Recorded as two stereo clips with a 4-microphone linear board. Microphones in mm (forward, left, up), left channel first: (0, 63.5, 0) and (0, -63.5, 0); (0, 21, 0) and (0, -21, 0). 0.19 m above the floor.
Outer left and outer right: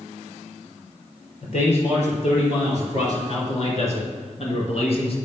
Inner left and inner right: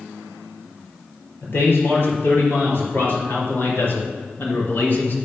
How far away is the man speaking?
About 4 m.